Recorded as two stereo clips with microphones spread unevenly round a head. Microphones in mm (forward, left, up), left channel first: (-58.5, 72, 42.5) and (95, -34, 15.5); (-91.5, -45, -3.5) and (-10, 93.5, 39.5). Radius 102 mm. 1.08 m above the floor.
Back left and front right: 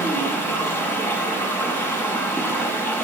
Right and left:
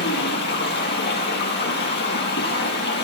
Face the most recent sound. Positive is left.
turn(degrees=-135)